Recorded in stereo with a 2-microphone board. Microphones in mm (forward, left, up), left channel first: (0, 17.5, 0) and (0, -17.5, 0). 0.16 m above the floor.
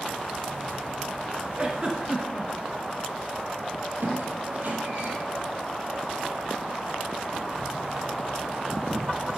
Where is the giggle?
25° right (ahead or behind), 1.9 m.